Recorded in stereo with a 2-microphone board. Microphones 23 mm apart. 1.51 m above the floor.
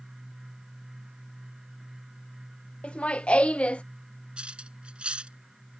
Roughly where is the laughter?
Left.